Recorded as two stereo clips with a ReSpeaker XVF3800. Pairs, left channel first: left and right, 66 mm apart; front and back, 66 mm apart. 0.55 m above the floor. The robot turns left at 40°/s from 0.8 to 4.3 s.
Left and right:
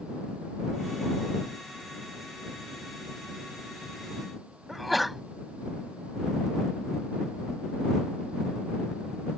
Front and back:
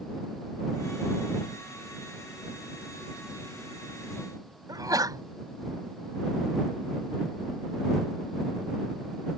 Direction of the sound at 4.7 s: Straight behind.